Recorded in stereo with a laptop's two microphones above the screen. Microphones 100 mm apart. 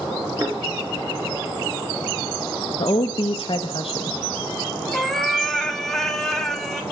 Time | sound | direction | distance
0.4 | a thud | 35° right (ahead or behind) | 3.5 m
2.8 | a woman speaking | 55° left (ahead or behind) | 0.6 m
4.9 | a cat meowing | 5° left (ahead or behind) | 0.9 m